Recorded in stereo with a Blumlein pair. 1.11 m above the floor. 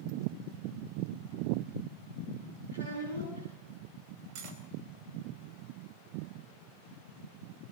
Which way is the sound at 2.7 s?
65° right.